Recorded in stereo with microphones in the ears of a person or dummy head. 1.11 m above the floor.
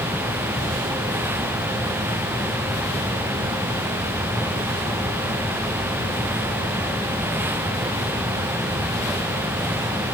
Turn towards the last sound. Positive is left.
No sound to turn to.